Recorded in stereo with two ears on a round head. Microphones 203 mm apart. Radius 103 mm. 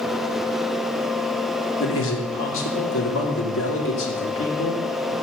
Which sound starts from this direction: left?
A man speaking, at 1.8 s.